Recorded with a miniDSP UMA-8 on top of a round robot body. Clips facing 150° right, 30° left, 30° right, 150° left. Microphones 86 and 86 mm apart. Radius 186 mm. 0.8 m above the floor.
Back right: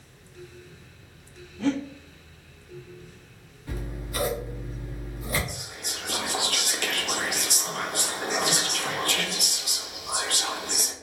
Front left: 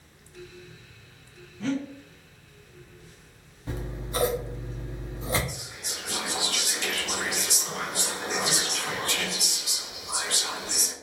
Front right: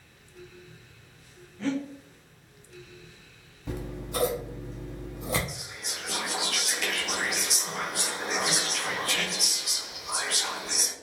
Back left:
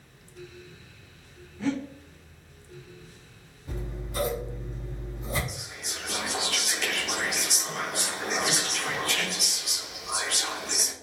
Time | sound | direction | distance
1.6 | breathing | 130° right | 0.8 m
3.7 | scissors | 35° right | 0.8 m
5.5 | whispering | 120° right | 1.0 m